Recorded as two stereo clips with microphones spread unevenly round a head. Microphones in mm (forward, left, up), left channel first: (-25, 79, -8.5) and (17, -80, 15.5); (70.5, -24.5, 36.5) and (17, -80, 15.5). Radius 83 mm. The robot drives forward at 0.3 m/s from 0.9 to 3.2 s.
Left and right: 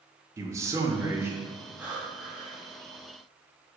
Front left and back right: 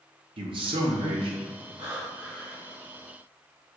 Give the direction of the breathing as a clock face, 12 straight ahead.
5 o'clock.